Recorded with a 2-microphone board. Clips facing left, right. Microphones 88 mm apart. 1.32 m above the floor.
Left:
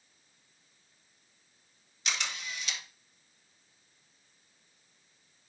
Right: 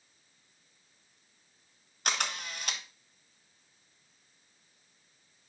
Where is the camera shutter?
55° right (ahead or behind), 1.1 m.